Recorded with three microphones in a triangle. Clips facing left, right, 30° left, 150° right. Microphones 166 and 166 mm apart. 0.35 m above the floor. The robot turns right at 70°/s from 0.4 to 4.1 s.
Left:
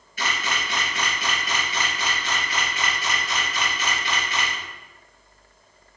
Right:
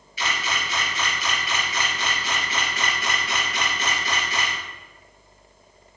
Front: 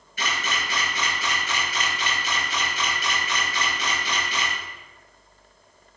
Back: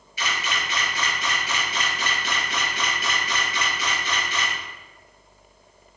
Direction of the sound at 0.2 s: 60° left.